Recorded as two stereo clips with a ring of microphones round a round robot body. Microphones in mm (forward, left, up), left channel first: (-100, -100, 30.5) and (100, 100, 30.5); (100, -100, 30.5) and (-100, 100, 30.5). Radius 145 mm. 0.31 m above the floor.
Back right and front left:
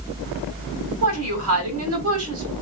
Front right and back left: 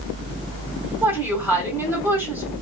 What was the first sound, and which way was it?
A woman speaking, 55° left.